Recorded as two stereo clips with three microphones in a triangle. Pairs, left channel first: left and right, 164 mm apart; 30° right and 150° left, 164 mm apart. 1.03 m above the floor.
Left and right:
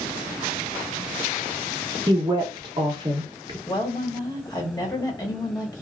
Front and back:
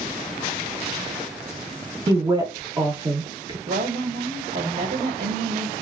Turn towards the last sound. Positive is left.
turn(degrees=155)